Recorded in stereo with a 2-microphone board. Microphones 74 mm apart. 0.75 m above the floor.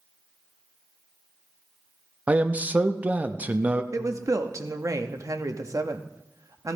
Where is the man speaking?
20° right (ahead or behind), 0.5 m.